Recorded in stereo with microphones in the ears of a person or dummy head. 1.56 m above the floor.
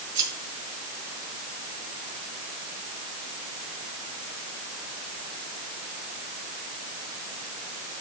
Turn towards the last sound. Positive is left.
turn(degrees=-25)  # may be behind; listen again after turning